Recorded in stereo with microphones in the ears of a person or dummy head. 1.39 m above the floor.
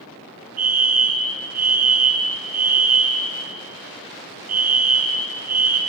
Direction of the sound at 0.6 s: 75° right (ahead or behind).